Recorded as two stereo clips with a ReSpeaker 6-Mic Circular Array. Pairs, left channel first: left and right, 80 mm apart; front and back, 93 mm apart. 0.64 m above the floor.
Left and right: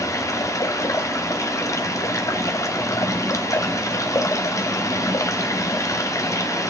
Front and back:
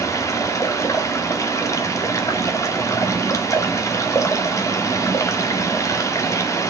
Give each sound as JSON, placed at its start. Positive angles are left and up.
{"t": 0.0, "sound": "running water", "azimuth_deg": 50, "distance_m": 1.0}